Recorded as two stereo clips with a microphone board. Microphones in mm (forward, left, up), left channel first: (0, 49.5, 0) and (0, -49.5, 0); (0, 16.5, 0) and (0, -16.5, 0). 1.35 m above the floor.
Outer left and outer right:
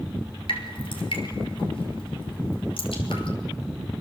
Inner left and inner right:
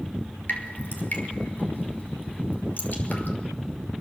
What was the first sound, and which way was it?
Dripping, 65° left (ahead or behind).